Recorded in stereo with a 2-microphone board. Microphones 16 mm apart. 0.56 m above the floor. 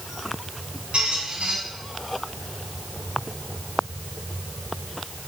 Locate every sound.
0.9 s a squeak: 75° right (ahead or behind), 2 m